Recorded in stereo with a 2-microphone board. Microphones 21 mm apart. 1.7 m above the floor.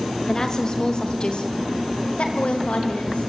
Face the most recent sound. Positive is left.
turn(degrees=80)